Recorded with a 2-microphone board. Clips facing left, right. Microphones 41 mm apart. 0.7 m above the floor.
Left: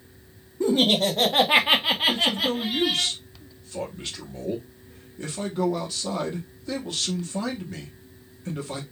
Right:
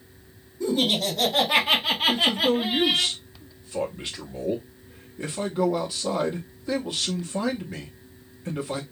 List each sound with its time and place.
0.6 s laughter: 45° left (ahead or behind), 1.6 m; by 3.1 s 30° right (ahead or behind), 1.3 m
2.1 s a man speaking: 15° right (ahead or behind), 0.9 m